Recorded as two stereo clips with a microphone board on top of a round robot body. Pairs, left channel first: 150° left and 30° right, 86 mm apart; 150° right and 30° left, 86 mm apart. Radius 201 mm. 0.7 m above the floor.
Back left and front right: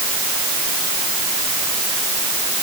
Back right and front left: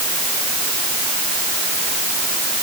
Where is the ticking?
No ticking in this recording.